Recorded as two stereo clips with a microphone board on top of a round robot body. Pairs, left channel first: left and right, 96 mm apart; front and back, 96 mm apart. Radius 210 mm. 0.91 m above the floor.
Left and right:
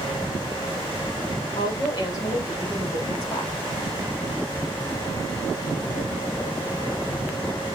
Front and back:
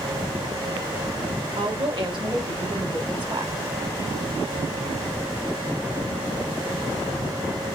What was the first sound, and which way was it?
A woman speaking, 145° left.